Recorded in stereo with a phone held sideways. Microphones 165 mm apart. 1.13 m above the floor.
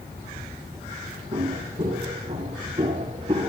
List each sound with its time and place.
1.3 s footsteps: 40° right (ahead or behind), 9 m; by 3.5 s 35° right (ahead or behind), 8 m